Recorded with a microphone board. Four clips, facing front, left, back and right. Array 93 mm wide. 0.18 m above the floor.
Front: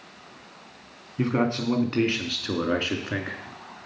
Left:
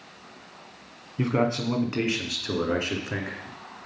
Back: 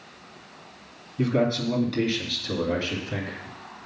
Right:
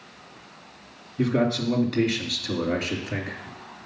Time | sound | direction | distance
1.2 | a man speaking | 45° left | 1.7 m